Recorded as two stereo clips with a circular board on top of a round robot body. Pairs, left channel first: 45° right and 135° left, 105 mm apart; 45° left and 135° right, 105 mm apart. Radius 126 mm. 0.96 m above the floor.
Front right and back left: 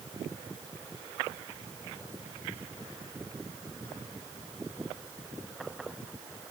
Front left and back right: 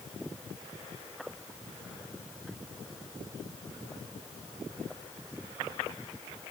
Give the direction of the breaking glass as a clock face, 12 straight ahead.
No breaking glass in this recording.